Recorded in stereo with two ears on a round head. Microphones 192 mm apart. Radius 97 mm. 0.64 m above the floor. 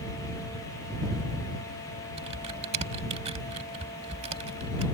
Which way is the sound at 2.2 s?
30° right (ahead or behind).